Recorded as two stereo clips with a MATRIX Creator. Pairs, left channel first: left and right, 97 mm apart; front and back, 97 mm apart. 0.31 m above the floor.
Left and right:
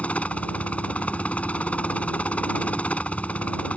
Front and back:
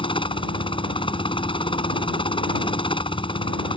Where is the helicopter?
15° left.